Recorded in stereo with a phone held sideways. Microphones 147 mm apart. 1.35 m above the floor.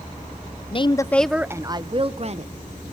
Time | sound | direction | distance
0.7 | a woman speaking | 40° left (ahead or behind) | 0.6 m